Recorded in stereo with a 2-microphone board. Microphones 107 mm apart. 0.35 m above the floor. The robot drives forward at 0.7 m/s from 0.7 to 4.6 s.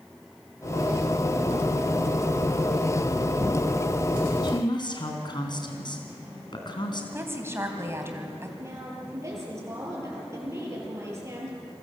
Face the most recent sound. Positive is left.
turn(degrees=-30)  # may be behind; listen again after turning